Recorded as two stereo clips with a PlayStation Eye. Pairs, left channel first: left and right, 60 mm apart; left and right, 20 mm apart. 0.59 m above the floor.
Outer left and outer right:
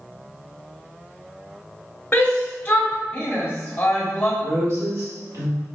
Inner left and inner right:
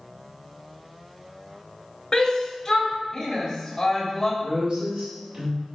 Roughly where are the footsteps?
I don't hear footsteps.